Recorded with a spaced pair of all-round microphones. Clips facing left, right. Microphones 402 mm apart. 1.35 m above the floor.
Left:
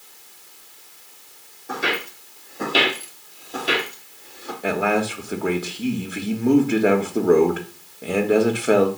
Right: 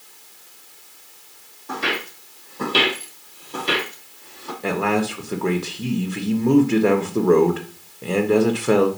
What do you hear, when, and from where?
1.7 s footsteps: 10° right (ahead or behind), 2.5 m
4.6 s a man speaking: 5° right (ahead or behind), 1.2 m